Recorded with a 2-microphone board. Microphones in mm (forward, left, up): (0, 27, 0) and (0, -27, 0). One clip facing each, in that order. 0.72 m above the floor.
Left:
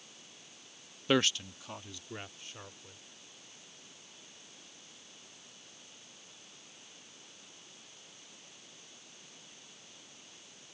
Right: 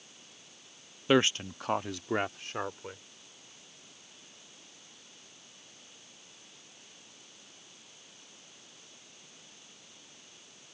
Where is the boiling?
I don't hear boiling.